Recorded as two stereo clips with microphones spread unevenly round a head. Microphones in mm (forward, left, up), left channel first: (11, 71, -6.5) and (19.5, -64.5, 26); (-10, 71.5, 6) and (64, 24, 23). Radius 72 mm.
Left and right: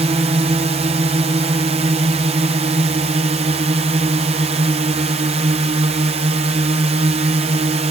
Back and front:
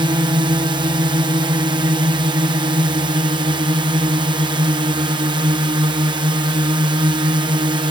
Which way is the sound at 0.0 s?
45° right.